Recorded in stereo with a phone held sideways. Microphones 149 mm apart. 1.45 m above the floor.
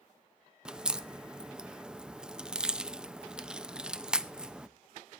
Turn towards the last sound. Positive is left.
turn(degrees=-5)  # may be behind; listen again after turning